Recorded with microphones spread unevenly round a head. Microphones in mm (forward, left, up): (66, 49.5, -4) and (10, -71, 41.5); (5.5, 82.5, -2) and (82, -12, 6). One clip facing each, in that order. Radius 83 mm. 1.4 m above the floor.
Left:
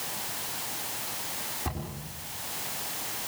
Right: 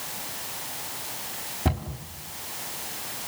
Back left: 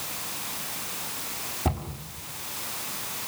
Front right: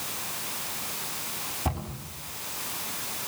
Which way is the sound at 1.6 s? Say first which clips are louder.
Right 8 dB, back left 3 dB; 160° right.